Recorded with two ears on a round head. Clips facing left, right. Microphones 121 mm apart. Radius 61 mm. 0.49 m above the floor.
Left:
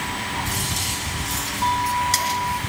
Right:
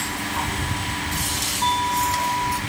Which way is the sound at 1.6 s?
30° right (ahead or behind).